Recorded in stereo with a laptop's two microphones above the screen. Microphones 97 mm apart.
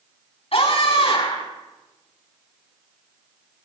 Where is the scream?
75° left (ahead or behind), 9.5 m.